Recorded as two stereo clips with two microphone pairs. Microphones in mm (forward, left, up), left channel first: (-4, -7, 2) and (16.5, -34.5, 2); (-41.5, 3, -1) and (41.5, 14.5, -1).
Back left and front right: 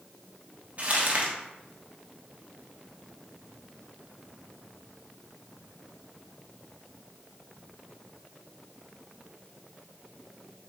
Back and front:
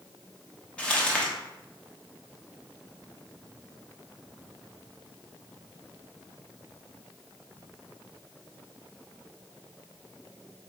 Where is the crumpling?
95° right, 0.9 m.